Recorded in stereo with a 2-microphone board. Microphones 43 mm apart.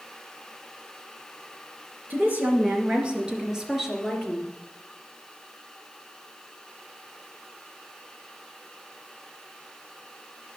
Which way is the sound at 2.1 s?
50° right (ahead or behind).